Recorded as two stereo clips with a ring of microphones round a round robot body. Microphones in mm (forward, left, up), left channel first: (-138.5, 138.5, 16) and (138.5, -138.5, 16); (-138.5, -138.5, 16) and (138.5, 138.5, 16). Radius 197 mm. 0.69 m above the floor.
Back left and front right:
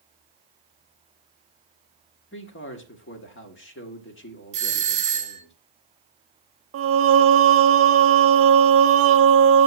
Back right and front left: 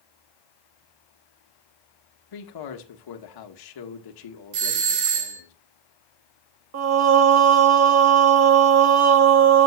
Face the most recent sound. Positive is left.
turn(degrees=5)